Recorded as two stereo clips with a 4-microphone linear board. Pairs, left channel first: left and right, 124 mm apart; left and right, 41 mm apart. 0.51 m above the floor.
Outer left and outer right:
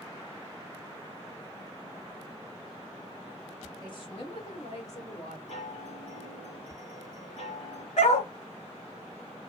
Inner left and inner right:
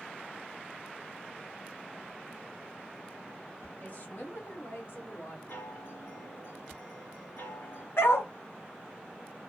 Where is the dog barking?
70° left (ahead or behind), 1.3 m.